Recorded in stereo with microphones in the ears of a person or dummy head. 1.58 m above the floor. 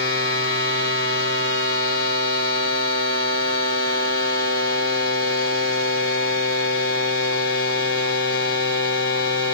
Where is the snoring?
I don't hear snoring.